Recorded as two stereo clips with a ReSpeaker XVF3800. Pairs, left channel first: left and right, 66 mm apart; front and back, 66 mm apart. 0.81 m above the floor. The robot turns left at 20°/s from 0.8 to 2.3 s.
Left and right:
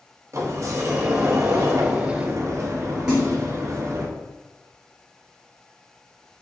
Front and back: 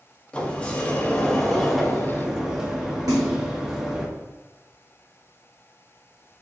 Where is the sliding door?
70° right, 0.6 m; by 4.1 s 100° right, 0.6 m.